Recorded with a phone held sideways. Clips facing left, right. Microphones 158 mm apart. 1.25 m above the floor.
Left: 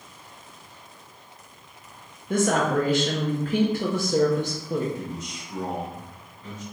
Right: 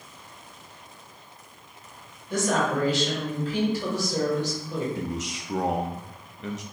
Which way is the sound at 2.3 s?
55° left (ahead or behind).